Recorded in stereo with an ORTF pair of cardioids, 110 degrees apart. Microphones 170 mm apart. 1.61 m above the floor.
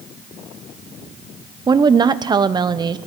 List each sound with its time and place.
1.7 s a woman speaking: 25° right, 0.6 m